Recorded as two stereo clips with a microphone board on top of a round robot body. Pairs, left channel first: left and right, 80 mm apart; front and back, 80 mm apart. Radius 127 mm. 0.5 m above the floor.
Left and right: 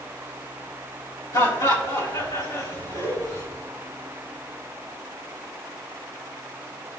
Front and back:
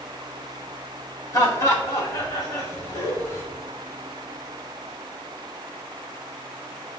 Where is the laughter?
50° left, 4 m.